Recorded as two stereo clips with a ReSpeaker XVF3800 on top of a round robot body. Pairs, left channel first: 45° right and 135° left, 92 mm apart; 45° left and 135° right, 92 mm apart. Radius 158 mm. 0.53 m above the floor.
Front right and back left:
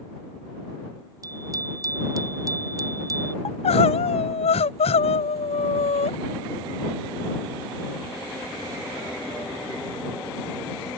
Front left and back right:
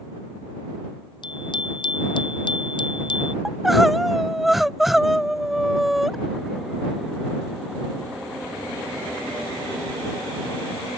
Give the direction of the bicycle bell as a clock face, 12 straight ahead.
9 o'clock.